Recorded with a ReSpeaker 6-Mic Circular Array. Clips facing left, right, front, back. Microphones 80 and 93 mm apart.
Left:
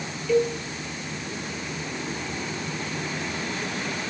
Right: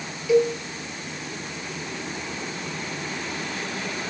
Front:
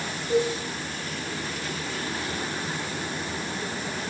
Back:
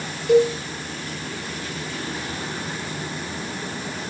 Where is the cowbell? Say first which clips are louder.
Right 3 dB, back 8 dB; 170° right, 2.5 m.